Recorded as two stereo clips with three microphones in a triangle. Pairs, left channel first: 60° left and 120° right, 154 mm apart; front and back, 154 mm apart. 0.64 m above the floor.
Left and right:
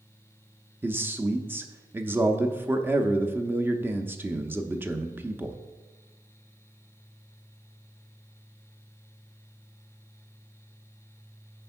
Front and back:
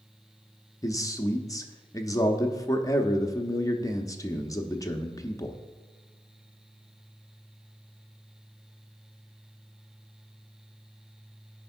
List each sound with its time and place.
0.8 s a man speaking: 50° right, 0.7 m